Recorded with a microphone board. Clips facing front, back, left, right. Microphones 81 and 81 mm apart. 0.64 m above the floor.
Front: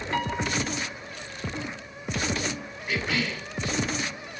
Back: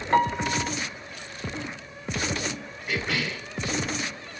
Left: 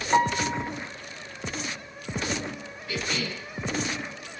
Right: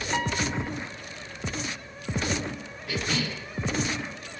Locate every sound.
0.1 s a piano: 135° left, 1.7 m
2.9 s a cough: 90° right, 6 m